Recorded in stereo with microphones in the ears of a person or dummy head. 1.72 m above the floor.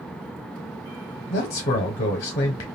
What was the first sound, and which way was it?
A man speaking, 45° left (ahead or behind).